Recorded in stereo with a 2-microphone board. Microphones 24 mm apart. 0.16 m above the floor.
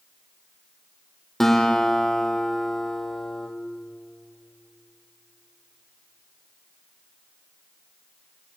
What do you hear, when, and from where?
1.4 s a guitar: 5° left (ahead or behind), 3.5 m